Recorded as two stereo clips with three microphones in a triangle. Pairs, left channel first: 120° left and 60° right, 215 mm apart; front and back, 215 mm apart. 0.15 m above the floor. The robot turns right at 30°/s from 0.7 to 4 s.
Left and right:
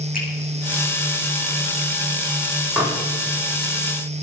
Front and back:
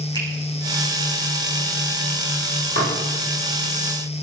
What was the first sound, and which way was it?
A finger snap, 70° left.